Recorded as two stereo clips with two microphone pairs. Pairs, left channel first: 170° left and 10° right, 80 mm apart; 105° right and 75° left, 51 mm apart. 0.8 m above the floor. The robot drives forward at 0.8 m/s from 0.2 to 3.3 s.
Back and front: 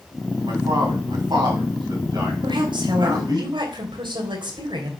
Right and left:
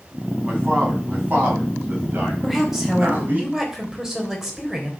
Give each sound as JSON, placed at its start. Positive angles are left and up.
{"t": 0.4, "sound": "a man speaking", "azimuth_deg": 15, "distance_m": 6.5}
{"t": 2.4, "sound": "a woman speaking", "azimuth_deg": -5, "distance_m": 4.0}